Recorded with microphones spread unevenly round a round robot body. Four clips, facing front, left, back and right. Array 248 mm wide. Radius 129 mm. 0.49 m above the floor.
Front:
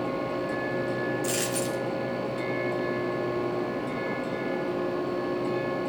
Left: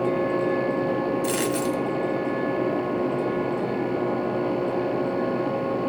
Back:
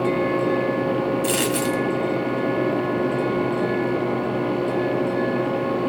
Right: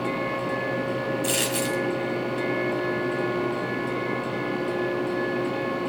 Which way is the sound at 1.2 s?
165° left.